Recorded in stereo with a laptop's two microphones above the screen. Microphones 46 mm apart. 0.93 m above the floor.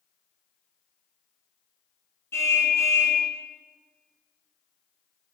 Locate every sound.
2.3 s a car horn: 70° left (ahead or behind), 4.5 m